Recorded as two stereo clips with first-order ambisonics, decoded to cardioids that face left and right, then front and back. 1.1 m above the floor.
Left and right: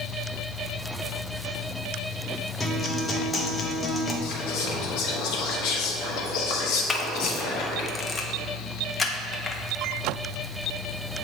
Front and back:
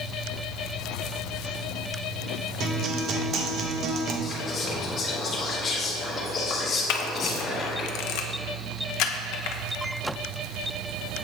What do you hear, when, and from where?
2.6 s a guitar: 155° left, 0.7 m
4.2 s whispering: 70° left, 0.9 m
6.9 s a camera shutter: 15° left, 0.5 m